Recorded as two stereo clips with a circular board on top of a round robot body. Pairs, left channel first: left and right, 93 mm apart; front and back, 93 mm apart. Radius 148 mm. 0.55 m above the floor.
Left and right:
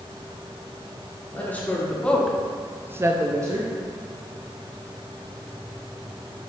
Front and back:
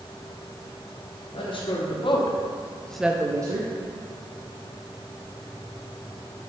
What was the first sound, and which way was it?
A woman speaking, 20° left.